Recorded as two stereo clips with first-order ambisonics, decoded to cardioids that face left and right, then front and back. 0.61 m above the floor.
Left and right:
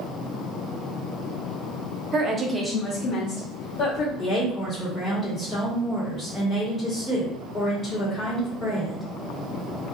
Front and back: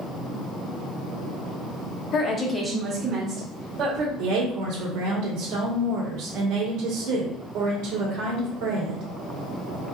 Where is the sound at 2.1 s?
40° right, 0.9 m; by 4.1 s 130° left, 2 m.